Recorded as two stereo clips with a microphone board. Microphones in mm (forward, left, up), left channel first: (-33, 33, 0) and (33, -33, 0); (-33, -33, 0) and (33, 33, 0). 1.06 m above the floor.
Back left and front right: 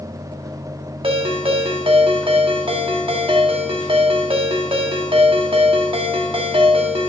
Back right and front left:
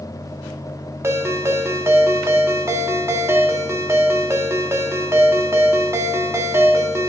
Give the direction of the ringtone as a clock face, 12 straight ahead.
1 o'clock.